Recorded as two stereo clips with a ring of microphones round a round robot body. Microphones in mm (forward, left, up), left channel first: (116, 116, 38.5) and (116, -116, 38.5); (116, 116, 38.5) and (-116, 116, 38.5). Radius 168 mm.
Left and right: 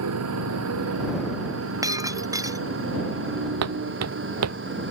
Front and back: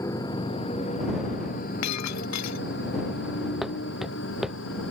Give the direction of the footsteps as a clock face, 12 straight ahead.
3 o'clock.